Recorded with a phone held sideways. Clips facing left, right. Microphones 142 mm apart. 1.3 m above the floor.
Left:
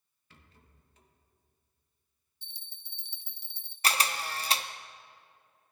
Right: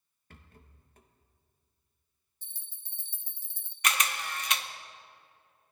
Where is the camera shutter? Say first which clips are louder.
Left 1 dB; 35° left (ahead or behind), 0.5 m.